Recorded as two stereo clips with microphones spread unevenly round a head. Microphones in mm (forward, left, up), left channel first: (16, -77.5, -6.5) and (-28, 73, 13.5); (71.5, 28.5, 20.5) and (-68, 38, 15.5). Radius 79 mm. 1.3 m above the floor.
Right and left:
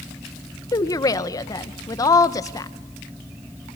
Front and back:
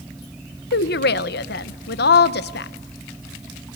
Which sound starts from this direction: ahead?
A woman speaking, at 0.7 s.